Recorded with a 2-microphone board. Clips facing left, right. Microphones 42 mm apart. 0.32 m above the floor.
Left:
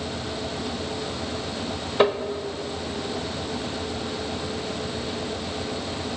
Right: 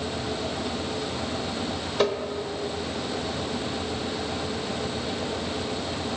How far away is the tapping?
About 0.9 m.